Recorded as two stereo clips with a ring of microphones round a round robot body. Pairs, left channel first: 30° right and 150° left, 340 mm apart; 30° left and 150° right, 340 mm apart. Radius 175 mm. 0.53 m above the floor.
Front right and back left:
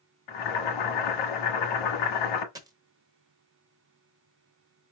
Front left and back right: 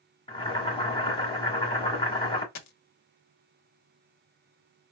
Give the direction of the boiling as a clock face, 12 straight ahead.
2 o'clock.